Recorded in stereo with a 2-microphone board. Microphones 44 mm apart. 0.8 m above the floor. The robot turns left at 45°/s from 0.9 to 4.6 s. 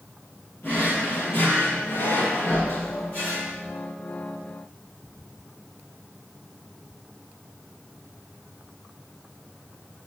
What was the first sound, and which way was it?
A drawer, 135° left.